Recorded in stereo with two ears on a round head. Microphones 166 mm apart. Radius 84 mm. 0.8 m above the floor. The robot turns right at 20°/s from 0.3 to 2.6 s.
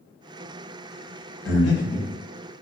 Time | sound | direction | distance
1.4 | breathing | 60° left (ahead or behind) | 0.7 m